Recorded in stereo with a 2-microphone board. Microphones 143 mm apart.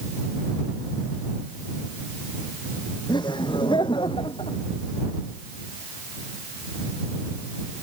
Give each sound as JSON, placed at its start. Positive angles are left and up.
{"t": 3.1, "sound": "laughter", "side_deg": 30}